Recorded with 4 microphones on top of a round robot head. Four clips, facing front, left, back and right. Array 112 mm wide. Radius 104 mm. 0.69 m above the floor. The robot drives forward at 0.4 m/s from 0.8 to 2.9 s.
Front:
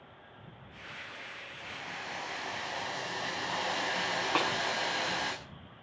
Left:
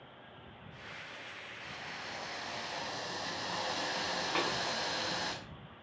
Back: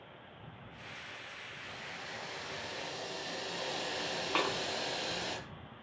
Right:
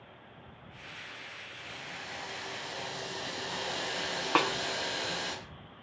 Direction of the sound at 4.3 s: 80° right.